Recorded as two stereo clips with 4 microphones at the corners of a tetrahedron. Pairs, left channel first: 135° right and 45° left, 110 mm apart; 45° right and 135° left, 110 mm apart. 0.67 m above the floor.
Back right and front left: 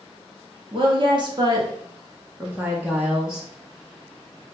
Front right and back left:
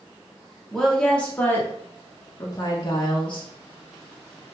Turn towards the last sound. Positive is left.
turn(degrees=-40)